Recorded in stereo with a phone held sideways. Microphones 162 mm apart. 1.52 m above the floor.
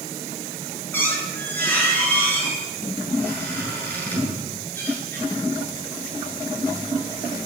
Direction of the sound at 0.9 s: 10° left (ahead or behind).